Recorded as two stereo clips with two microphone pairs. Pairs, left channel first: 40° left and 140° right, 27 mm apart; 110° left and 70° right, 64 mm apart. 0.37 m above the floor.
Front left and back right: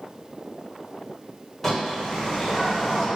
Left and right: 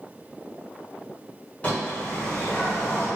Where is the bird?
110° left, 1.2 m.